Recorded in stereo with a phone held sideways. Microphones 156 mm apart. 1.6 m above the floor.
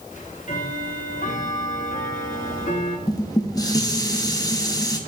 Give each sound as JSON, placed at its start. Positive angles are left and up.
{"t": 0.1, "sound": "ticking", "side_deg": 55, "distance_m": 1.1}
{"t": 3.1, "sound": "dishes clattering", "side_deg": 25, "distance_m": 0.8}